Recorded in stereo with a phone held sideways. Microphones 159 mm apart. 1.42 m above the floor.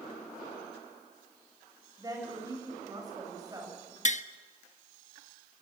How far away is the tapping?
About 0.7 m.